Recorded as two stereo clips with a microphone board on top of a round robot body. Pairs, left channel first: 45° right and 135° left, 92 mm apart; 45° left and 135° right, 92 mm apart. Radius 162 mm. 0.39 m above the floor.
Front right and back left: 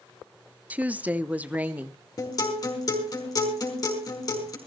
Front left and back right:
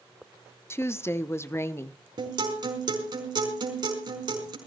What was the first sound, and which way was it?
A woman speaking, 75° left.